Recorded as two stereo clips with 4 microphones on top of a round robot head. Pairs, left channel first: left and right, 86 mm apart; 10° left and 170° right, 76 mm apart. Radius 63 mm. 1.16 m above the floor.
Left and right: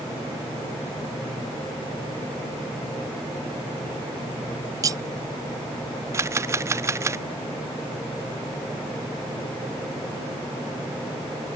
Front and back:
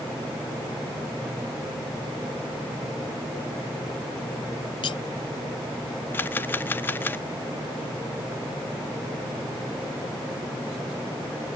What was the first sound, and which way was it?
Cutlery clinking, 40° right.